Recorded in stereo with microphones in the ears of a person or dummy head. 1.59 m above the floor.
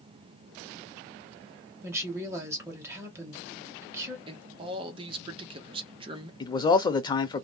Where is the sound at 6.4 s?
25° left (ahead or behind), 0.6 m.